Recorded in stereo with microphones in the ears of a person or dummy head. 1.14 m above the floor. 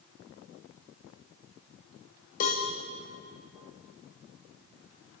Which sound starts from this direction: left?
A cowbell, at 2.4 s.